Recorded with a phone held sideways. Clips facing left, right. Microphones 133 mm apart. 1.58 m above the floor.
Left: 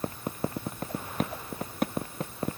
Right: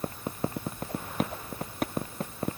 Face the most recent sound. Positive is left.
No sound to turn to.